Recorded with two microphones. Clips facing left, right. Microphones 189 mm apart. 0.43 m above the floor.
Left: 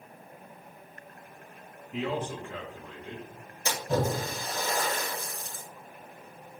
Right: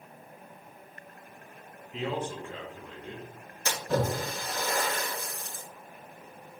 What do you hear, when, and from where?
1.9 s a man speaking: 75° left (ahead or behind), 4 m
3.6 s a splash: 15° left (ahead or behind), 5 m